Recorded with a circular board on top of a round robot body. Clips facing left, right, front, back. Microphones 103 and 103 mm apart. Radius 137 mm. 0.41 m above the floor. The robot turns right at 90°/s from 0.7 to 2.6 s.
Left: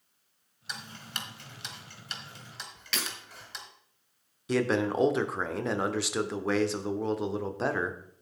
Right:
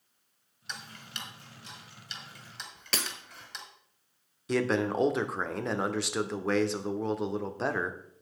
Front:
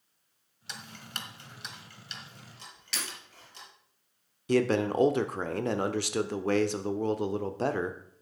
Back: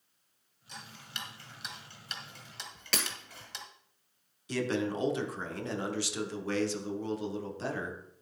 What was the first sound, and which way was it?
Ticking, 5° left.